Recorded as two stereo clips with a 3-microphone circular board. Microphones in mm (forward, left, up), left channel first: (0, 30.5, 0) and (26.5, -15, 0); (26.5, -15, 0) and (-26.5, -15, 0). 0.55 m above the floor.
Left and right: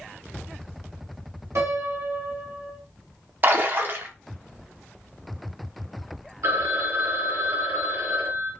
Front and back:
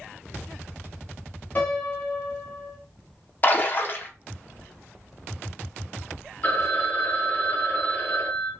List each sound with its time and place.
1.6 s a piano: 55° right, 0.9 m
3.4 s a splash: 35° right, 0.6 m
6.4 s a phone ringing: 55° right, 0.8 m